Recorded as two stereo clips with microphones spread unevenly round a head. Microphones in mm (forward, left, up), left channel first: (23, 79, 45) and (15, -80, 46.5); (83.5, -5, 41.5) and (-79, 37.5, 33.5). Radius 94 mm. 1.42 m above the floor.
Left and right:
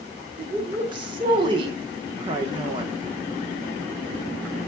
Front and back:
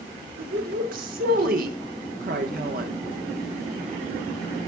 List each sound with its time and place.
0.4 s a woman speaking: 155° right, 1.3 m